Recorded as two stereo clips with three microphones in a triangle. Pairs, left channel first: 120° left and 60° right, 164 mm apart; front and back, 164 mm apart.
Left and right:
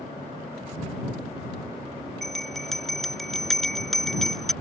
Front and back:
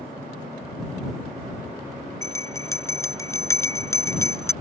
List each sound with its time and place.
2.2 s a bell: 35° left